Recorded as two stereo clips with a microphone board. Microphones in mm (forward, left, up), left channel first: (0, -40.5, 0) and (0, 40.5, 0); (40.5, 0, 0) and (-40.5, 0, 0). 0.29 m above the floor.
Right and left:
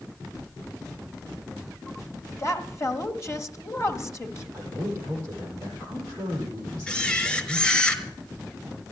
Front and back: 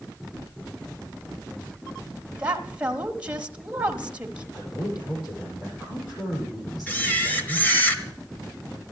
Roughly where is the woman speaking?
Behind right.